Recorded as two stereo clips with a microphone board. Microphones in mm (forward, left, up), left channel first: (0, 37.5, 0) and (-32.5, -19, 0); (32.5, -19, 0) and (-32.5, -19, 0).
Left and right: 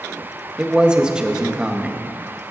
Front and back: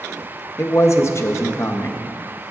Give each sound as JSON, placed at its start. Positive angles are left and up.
{"t": 0.6, "sound": "a man speaking", "azimuth_deg": -45, "distance_m": 1.2}